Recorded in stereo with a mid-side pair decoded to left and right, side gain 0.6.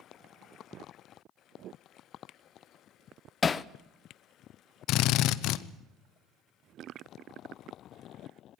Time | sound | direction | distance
3.4 | hammering | 30° left | 0.7 m
4.9 | a drill | 70° left | 0.9 m